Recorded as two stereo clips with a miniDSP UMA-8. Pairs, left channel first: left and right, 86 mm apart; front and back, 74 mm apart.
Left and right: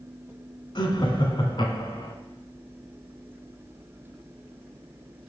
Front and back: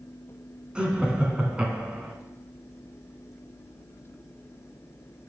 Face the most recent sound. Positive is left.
turn(degrees=105)